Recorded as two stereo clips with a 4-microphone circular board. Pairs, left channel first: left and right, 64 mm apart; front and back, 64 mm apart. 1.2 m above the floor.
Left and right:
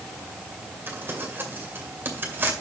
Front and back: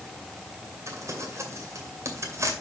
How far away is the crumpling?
About 2 m.